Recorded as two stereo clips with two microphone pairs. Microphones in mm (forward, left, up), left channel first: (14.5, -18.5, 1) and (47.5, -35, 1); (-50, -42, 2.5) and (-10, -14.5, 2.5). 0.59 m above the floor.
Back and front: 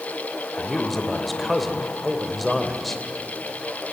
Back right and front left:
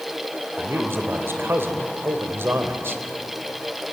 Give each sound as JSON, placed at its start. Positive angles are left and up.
{"t": 0.6, "sound": "a man speaking", "azimuth_deg": 65, "distance_m": 2.5}